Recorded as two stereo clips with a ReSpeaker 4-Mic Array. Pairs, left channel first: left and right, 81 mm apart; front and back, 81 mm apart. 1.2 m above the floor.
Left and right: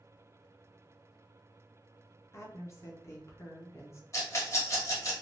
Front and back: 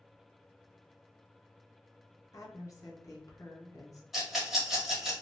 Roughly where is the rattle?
Left.